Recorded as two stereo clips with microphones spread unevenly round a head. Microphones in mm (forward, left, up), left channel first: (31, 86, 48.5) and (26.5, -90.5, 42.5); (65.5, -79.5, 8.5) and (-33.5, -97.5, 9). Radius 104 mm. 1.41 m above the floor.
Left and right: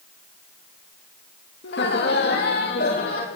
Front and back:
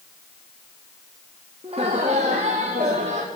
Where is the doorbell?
No doorbell in this recording.